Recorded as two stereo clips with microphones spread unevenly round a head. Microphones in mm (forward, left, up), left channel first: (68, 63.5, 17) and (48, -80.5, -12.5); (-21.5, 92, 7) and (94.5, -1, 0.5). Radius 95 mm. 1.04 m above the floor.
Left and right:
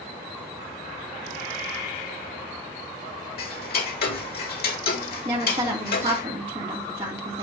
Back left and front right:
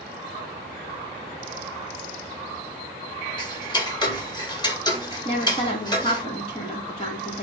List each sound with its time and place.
3.4 s ticking: 85° left, 1.8 m
5.2 s a woman speaking: 155° right, 2 m